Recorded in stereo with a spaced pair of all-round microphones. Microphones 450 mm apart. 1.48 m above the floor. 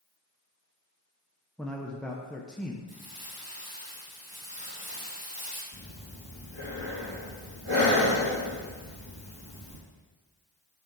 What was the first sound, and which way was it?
A man speaking, centre (ahead or behind).